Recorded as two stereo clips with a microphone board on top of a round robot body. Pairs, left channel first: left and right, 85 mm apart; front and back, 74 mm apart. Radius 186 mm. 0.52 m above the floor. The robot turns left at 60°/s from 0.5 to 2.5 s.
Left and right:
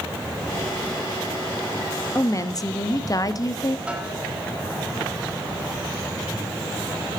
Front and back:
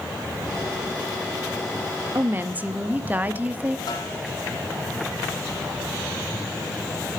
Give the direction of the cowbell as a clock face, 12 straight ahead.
No cowbell in this recording.